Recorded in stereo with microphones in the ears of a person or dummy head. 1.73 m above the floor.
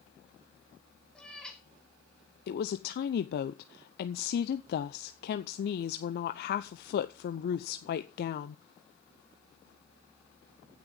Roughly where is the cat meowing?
Centre.